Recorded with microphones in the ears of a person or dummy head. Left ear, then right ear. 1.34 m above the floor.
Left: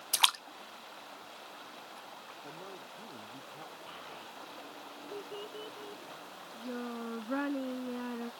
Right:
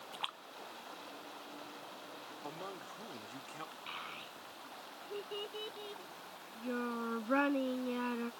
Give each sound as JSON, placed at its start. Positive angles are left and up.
{"t": 0.1, "sound": "a splash", "side_deg": 70}
{"t": 2.4, "sound": "a man speaking", "side_deg": -50}
{"t": 3.9, "sound": "a child speaking", "side_deg": -75}